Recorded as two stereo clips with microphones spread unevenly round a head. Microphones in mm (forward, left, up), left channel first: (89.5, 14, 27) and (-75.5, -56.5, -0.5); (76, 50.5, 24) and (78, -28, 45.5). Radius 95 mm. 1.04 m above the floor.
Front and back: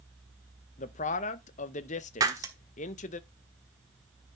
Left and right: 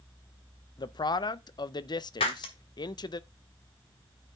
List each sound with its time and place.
0.8 s a man speaking: 80° left, 0.6 m
2.2 s breaking glass: 130° left, 1.0 m